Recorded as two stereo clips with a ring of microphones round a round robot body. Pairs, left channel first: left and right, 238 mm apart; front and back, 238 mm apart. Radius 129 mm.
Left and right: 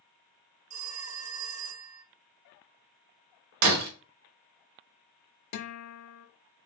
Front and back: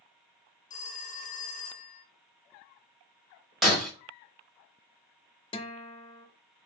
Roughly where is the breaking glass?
Right.